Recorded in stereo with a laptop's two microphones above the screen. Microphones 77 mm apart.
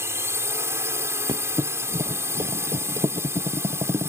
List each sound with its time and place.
0.0 s a drone: 35° right (ahead or behind)
1.3 s a thud: 70° right (ahead or behind)